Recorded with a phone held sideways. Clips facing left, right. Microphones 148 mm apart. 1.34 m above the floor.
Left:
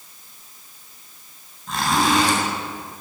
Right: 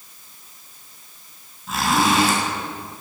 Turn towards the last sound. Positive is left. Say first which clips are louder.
# even
turn(degrees=-5)  # may be behind; listen again after turning